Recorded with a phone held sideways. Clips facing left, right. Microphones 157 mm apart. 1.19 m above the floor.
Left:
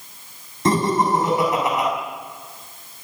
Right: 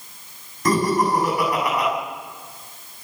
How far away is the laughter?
About 8.5 m.